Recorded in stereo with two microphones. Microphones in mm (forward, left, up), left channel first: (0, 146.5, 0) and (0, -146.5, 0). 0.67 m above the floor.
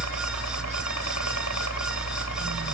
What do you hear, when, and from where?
0.0 s a helicopter: 65° left (ahead or behind)